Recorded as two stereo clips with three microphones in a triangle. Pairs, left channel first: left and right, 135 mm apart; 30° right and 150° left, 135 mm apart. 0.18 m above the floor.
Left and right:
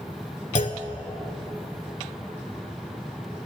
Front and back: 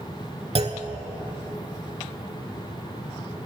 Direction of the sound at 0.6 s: 110° left.